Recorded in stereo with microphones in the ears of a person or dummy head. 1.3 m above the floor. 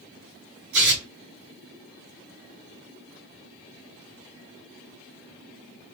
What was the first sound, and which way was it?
Tearing paper, 55° right (ahead or behind).